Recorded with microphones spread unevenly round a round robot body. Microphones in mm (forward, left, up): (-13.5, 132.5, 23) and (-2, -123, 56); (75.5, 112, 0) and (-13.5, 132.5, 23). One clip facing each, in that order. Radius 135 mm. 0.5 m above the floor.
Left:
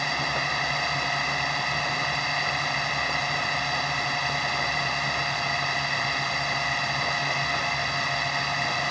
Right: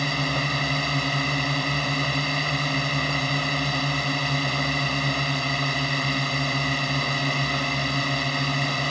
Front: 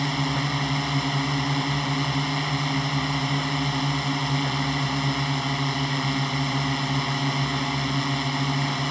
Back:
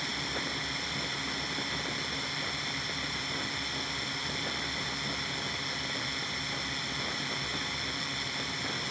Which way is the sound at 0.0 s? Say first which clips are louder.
Right 6 dB, front 11 dB; 35° right.